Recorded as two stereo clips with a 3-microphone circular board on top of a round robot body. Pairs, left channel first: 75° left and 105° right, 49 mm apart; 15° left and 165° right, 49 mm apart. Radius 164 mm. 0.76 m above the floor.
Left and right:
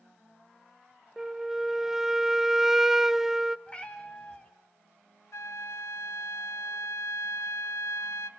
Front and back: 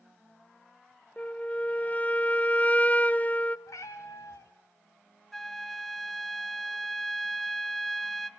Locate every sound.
1.2 s a flute: 25° right, 0.6 m
3.7 s a cat meowing: 5° left, 0.5 m
5.3 s a flute: 100° left, 0.6 m